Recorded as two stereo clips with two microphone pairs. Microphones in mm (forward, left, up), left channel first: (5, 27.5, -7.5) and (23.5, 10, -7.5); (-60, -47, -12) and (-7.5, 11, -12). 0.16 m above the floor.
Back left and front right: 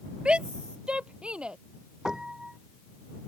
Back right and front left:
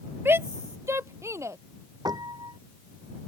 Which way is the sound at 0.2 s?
10° right.